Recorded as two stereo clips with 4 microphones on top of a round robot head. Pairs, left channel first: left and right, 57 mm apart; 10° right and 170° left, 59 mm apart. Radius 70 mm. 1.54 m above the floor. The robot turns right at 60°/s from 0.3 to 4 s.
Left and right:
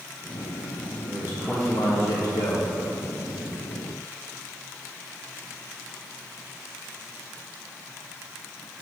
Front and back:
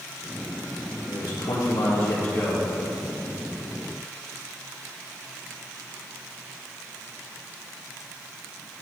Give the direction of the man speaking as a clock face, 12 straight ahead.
1 o'clock.